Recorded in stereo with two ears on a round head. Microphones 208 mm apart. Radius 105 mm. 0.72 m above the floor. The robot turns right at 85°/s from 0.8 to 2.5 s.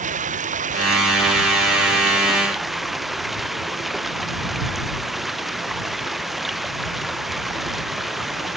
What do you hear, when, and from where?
0.0 s running water: 145° right; by 8.6 s straight ahead